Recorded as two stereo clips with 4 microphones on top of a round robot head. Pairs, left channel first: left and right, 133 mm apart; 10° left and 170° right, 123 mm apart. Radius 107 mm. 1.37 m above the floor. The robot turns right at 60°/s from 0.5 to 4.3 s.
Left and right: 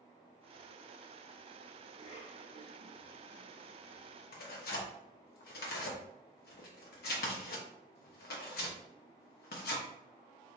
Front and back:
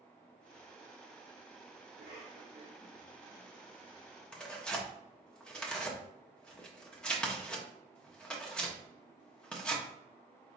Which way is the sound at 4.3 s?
90° left.